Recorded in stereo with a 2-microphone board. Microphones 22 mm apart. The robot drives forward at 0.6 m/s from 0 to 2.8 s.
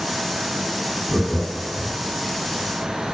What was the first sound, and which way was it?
Laughter, centre (ahead or behind).